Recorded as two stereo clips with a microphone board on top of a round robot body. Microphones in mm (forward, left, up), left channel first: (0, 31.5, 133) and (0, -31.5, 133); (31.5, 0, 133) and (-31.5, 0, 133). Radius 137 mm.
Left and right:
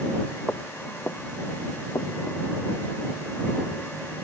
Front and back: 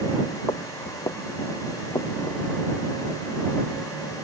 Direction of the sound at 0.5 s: 25° left.